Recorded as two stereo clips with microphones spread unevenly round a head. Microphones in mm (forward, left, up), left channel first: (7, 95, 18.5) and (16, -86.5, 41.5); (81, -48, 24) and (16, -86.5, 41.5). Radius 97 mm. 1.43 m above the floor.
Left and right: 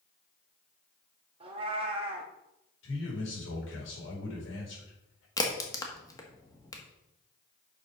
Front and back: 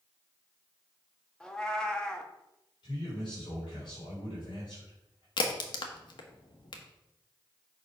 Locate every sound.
1.4 s a cat meowing: 60° right, 1.0 m
2.8 s a man speaking: 75° left, 4.5 m
5.4 s a crack: 20° left, 1.2 m